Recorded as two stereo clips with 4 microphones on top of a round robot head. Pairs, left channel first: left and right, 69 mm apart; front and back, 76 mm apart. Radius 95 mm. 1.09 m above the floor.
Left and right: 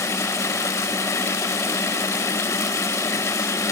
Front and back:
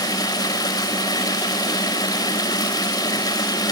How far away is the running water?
About 5 m.